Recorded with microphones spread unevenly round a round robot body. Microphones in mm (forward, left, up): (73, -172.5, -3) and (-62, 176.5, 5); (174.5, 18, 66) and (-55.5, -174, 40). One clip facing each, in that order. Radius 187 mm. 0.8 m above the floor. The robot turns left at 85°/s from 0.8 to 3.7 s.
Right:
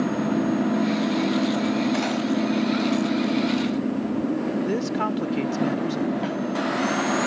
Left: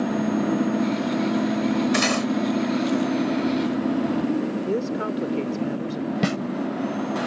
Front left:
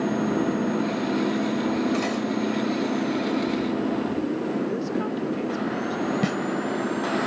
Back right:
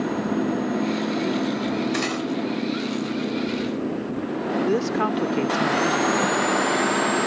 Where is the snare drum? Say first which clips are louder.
Left 3 dB, back right 1 dB; 95° left.